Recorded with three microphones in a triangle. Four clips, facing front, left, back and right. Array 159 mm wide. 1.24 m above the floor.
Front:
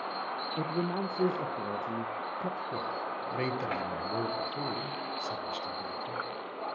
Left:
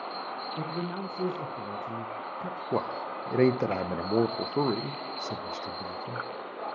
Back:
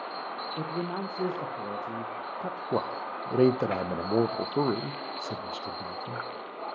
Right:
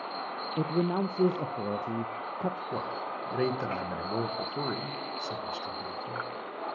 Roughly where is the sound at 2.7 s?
Behind left.